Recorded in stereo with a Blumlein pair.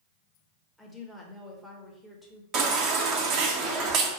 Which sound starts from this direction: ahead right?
A baby crying, at 2.5 s.